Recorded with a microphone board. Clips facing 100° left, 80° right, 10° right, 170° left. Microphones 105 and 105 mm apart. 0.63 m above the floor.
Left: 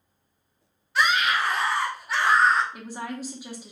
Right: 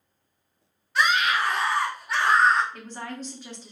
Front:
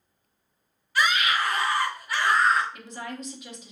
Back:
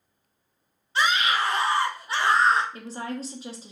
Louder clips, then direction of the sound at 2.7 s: Left 2 dB, back 4 dB; 165° left.